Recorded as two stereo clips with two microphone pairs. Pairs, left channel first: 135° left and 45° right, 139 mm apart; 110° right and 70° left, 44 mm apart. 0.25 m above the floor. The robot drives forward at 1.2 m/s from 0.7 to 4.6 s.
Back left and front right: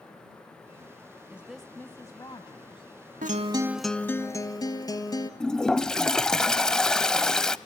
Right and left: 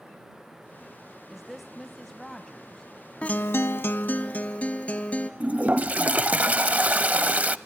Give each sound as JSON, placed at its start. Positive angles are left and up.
{"t": 1.3, "sound": "a woman speaking", "azimuth_deg": 5, "distance_m": 0.9}
{"t": 3.2, "sound": "a guitar", "azimuth_deg": -55, "distance_m": 0.6}
{"t": 5.4, "sound": "a toilet flushing", "azimuth_deg": 55, "distance_m": 0.6}